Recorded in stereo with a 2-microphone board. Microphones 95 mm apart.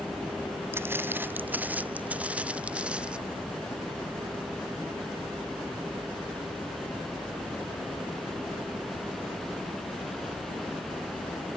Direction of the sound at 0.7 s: 25° right (ahead or behind).